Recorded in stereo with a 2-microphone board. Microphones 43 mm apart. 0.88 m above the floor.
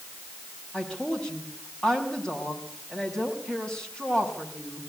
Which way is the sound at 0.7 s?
20° left (ahead or behind).